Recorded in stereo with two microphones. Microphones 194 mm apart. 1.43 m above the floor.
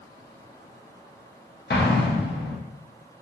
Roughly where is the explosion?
Left.